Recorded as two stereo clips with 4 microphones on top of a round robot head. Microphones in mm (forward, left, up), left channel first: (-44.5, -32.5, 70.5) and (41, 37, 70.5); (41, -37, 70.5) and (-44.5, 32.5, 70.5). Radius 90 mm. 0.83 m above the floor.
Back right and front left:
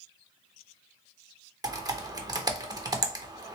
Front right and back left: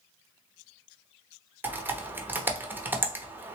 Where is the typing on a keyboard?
75° left, 0.9 m.